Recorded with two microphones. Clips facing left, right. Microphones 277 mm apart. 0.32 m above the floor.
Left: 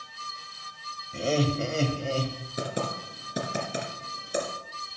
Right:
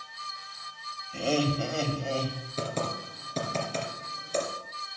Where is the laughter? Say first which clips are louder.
Left 1 dB; 20° left (ahead or behind), 1.9 m; by 2.4 s 35° left (ahead or behind), 2.5 m.